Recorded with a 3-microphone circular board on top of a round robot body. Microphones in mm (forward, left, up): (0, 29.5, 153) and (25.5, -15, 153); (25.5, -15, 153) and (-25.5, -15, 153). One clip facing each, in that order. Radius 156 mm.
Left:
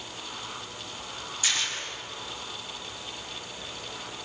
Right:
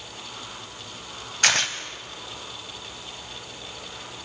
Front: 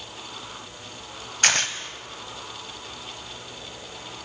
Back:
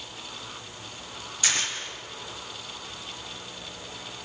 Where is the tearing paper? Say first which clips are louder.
Right 8 dB, front 6 dB; 35° right, 2 m.